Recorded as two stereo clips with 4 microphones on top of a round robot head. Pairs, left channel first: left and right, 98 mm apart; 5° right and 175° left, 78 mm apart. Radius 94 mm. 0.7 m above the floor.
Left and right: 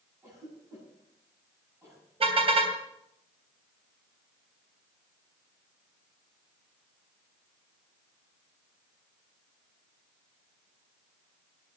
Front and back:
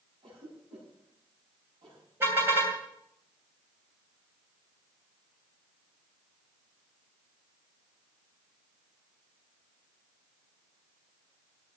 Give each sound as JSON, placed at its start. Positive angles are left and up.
{"t": 0.2, "sound": "a cough", "azimuth_deg": -155, "distance_m": 7.5}
{"t": 2.2, "sound": "a car horn", "azimuth_deg": -120, "distance_m": 3.0}